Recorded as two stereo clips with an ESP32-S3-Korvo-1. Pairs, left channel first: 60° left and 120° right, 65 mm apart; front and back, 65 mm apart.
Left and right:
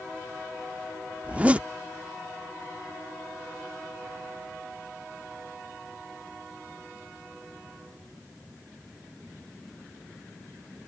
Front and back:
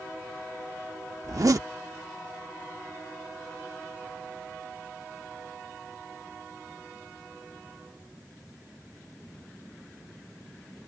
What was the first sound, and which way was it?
A zipper, 175° left.